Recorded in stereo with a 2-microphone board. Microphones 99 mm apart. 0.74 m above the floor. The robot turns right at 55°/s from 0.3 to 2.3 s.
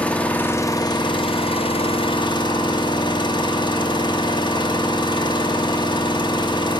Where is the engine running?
15° left, 1.1 m; by 6.8 s 125° left, 1.1 m.